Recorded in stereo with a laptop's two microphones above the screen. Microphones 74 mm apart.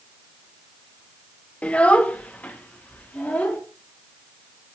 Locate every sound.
1.6 s a child speaking: 15° left (ahead or behind), 0.7 m; by 3.6 s 20° left (ahead or behind), 2 m